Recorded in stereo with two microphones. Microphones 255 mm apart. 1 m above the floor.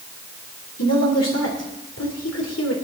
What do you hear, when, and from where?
0.8 s a woman speaking: 80° left, 3.5 m